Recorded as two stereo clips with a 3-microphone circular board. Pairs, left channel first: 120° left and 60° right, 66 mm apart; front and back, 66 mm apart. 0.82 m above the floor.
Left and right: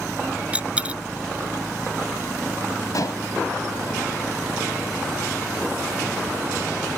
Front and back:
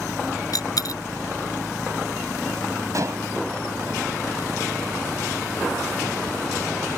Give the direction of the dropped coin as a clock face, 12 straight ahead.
12 o'clock.